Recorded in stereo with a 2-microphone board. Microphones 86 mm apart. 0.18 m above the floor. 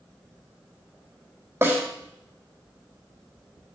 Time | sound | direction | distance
1.6 | a snare drum | 30° right (ahead or behind) | 4.5 m